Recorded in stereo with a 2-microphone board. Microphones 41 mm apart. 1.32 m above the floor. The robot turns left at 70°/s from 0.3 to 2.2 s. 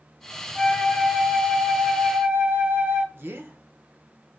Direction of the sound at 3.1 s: 70° right (ahead or behind).